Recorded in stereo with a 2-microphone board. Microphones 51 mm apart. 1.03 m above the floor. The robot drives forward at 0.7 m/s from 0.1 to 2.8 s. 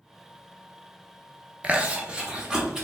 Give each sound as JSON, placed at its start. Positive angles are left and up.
{"t": 1.6, "sound": "chewing", "side_deg": -25, "distance_m": 0.6}